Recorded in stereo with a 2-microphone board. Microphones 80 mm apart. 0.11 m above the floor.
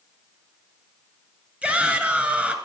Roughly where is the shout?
Centre.